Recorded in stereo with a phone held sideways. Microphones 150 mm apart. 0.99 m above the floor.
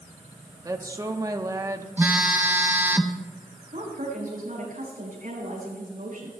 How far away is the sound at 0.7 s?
About 0.9 m.